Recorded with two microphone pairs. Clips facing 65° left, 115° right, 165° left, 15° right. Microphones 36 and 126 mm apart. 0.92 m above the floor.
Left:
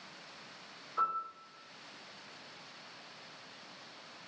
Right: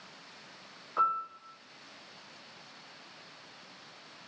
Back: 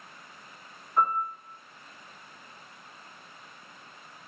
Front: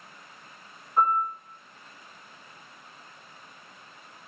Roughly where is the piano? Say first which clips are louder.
Right 5 dB, front 2 dB; right.